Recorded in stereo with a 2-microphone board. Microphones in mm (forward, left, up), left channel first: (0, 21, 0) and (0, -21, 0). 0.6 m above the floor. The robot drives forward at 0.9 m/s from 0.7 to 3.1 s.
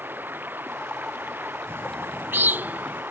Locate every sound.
0.0 s running water: 50° right (ahead or behind); by 3.1 s 55° right (ahead or behind)
1.7 s a bird: 75° right (ahead or behind); by 3.0 s 40° right (ahead or behind)